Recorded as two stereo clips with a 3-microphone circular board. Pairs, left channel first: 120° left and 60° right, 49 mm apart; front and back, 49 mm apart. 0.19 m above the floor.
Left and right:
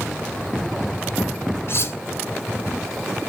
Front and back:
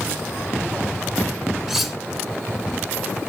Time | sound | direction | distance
1.7 | cutlery clinking | 95° left | 1.3 m